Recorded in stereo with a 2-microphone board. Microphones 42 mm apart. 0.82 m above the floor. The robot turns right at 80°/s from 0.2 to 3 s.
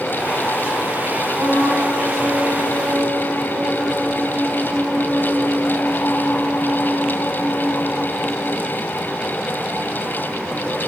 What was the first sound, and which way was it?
A trumpet, 55° right.